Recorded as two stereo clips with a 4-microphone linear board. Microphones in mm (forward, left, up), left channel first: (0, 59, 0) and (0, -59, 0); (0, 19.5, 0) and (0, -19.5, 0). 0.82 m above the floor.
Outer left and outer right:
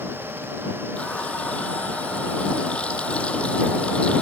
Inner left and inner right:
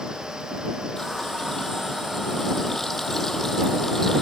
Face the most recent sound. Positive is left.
turn(degrees=10)  # may be behind; listen again after turning